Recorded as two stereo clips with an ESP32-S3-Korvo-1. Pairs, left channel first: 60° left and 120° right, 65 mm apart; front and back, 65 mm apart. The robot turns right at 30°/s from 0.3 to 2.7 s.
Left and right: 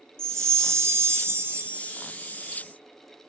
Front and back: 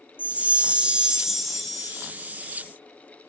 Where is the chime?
130° right, 1.0 m; by 2.1 s 75° right, 1.0 m.